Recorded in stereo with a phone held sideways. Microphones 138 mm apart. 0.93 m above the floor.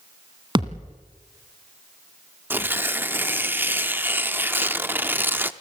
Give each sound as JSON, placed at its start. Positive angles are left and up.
{"t": 0.6, "sound": "a thud", "side_deg": -35, "distance_m": 1.8}
{"t": 2.5, "sound": "tearing paper", "side_deg": -15, "distance_m": 0.7}